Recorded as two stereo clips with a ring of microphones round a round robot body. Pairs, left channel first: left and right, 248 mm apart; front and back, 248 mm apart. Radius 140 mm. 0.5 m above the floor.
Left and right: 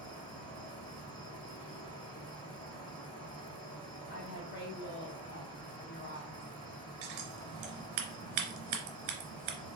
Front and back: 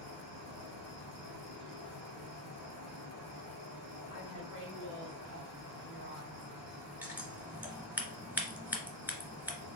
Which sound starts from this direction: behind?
An insect, at 0.0 s.